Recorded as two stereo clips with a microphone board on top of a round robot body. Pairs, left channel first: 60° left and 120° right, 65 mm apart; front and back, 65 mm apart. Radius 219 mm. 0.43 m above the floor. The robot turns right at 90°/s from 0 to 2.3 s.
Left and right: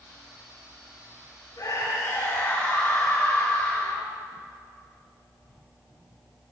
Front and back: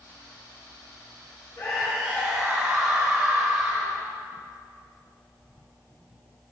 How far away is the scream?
About 5.5 m.